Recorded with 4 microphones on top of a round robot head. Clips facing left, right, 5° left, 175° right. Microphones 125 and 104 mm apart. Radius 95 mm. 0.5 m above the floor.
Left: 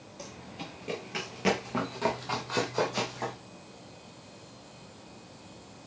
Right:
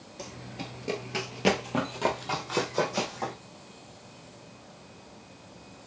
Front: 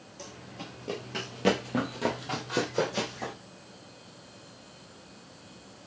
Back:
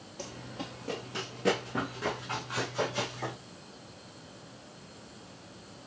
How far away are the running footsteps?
About 0.6 m.